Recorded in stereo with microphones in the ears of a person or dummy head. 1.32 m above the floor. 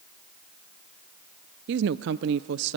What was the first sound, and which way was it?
A woman speaking, 65° right (ahead or behind).